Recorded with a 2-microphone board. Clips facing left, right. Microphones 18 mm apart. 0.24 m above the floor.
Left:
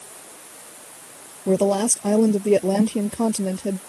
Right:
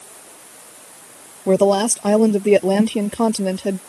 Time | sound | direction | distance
1.5 | a woman speaking | 30° right (ahead or behind) | ?